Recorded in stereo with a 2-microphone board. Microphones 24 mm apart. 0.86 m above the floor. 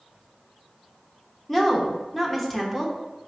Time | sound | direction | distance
1.5 | a woman speaking | 10° left (ahead or behind) | 0.7 m